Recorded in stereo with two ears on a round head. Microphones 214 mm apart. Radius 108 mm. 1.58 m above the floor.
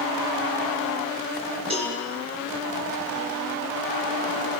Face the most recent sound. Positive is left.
turn(degrees=-25)  # may be behind; listen again after turning